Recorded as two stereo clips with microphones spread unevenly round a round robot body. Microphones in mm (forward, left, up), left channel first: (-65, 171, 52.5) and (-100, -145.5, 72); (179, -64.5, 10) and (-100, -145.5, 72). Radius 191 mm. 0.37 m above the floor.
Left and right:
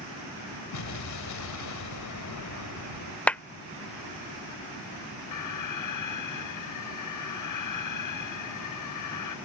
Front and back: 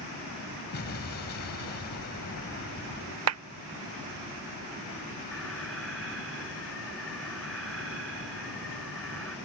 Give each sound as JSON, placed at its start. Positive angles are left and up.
{"t": 0.7, "sound": "an explosion", "azimuth_deg": 65}
{"t": 3.3, "sound": "a clap", "azimuth_deg": 165}
{"t": 5.3, "sound": "an alarm", "azimuth_deg": 105}